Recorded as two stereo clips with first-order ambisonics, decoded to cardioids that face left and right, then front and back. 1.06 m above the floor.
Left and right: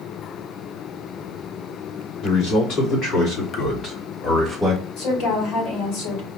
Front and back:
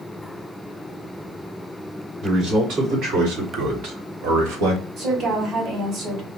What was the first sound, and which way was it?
A man speaking, 130° left.